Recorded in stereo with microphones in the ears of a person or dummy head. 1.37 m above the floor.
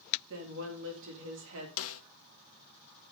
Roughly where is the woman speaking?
Right.